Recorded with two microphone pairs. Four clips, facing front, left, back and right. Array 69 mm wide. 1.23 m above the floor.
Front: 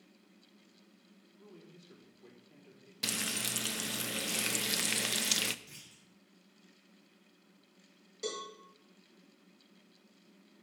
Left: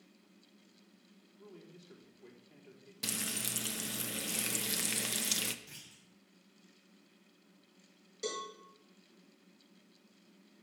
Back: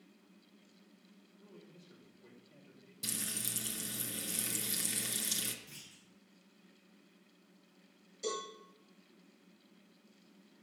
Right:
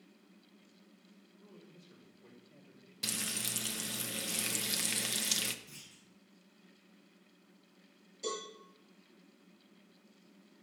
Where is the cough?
No cough in this recording.